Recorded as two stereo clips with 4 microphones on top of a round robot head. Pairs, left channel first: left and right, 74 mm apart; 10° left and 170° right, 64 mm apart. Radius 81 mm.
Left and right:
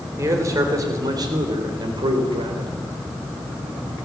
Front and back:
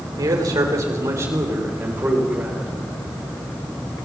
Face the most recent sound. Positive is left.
turn(degrees=-95)